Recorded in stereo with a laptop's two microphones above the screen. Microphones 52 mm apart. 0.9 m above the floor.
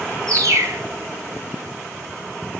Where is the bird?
80° right, 2.0 m.